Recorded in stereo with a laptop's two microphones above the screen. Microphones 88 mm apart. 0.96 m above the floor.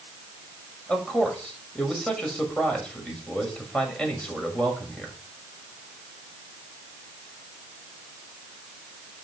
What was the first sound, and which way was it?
A man speaking, 10° left (ahead or behind).